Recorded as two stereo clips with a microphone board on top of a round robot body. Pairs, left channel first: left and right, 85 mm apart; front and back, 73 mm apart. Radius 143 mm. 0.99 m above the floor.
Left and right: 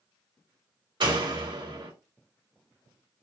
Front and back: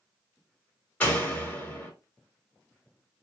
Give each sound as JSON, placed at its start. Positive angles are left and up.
{"t": 1.0, "sound": "a door slam", "azimuth_deg": -70, "distance_m": 1.8}